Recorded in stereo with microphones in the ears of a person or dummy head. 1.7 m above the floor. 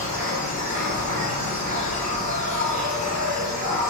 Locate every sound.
0.0 s an insect: 55° right (ahead or behind), 0.9 m